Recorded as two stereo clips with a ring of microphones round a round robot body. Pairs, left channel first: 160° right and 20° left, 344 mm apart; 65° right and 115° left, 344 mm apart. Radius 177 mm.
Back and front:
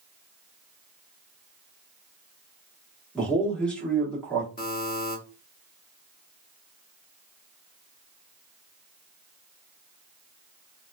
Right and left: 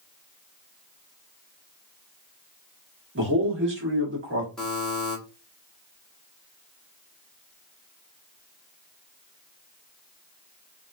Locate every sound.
3.1 s a man speaking: 120° left, 1.3 m
4.6 s a buzzer: 155° right, 1.2 m